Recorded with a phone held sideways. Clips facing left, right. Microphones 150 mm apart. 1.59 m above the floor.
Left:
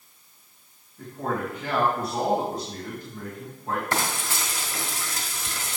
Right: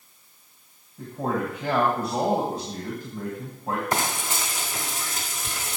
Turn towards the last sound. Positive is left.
turn(degrees=-20)  # may be behind; listen again after turning